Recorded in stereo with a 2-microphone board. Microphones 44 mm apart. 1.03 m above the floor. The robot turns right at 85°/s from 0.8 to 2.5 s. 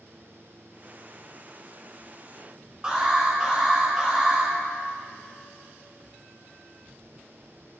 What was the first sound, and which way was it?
An alarm, 20° right (ahead or behind).